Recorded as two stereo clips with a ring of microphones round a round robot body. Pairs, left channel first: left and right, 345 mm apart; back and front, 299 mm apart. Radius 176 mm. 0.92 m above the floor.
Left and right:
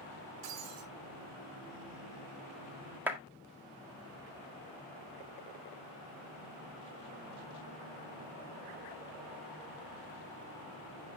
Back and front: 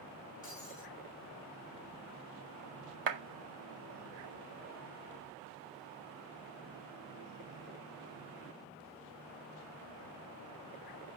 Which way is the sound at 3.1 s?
5° right.